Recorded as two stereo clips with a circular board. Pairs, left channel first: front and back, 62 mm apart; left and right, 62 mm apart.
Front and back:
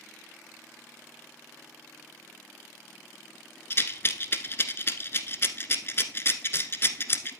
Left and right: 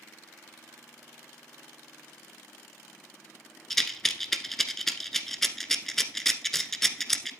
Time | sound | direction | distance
3.7 | a rattle | 5° left | 0.8 m